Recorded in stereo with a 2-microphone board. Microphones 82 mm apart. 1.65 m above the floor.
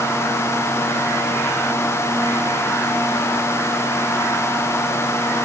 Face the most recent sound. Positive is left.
No sound to turn to.